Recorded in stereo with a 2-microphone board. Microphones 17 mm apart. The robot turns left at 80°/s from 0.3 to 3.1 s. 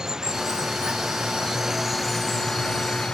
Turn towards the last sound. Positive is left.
turn(degrees=100)